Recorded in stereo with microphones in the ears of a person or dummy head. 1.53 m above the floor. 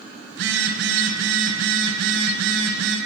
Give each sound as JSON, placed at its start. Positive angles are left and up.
{"t": 0.3, "sound": "a phone buzzing", "side_deg": -80, "distance_m": 5.0}